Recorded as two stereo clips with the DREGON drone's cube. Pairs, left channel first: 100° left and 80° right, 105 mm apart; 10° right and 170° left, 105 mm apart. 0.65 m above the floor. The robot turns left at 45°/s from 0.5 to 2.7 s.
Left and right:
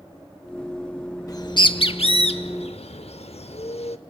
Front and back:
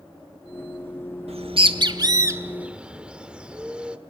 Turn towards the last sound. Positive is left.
turn(degrees=90)